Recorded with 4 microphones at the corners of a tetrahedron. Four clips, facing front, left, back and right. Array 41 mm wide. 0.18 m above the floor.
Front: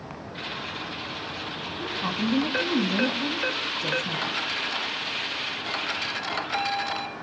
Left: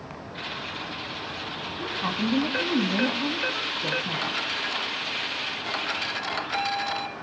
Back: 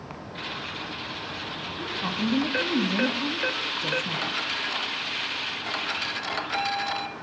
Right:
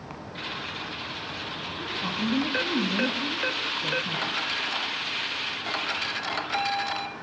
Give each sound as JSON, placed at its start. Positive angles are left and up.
{"t": 1.8, "sound": "a woman speaking", "azimuth_deg": 95, "distance_m": 1.3}